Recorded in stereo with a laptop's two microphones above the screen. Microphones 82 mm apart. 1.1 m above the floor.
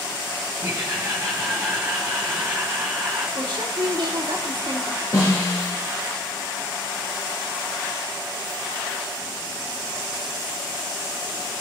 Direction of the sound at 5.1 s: 40° left (ahead or behind).